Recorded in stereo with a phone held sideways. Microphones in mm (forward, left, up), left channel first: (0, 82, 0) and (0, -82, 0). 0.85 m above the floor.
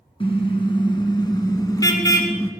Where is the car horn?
30° left (ahead or behind), 4.5 m; by 2.5 s 15° left (ahead or behind), 4 m.